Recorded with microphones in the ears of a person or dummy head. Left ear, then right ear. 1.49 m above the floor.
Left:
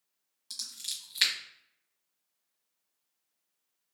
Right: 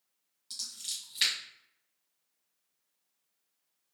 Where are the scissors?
15° left (ahead or behind), 1.4 m.